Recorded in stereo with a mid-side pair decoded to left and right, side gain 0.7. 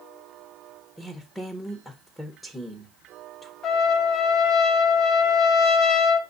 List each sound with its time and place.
1.0 s a woman speaking: 10° left, 1.1 m
3.6 s a trumpet: 45° left, 0.9 m